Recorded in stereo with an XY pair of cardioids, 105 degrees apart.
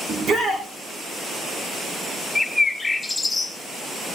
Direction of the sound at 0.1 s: 50° right.